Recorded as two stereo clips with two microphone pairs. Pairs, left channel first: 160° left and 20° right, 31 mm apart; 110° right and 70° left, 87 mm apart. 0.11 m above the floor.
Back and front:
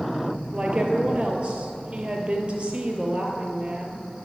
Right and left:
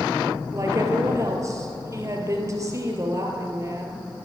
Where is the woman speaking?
25° left, 2.5 m.